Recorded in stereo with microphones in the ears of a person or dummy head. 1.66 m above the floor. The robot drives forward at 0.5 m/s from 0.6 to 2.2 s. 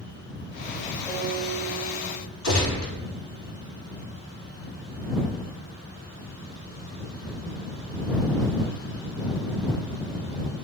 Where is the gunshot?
60° left (ahead or behind), 1.5 m.